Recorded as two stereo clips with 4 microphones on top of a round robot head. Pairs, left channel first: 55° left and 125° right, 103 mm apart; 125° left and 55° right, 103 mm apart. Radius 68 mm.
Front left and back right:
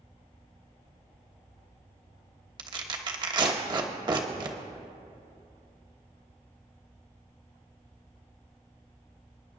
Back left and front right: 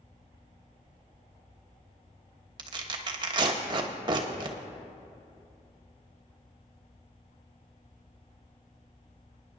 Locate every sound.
2.6 s tearing paper: 90° right, 1.2 m